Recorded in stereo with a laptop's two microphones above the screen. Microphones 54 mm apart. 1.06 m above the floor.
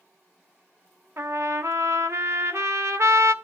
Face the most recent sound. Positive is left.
turn(degrees=-60)  # may be behind; listen again after turning